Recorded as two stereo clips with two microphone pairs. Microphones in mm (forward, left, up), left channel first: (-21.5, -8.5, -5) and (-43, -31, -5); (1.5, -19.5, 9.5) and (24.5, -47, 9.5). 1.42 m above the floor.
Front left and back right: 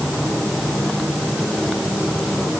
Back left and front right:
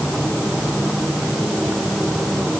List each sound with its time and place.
Only background noise.